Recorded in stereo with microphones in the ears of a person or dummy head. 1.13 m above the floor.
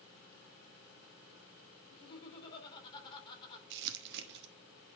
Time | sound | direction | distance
1.9 | laughter | 25° left (ahead or behind) | 3.5 m
3.7 | crumpling | 60° right (ahead or behind) | 1.0 m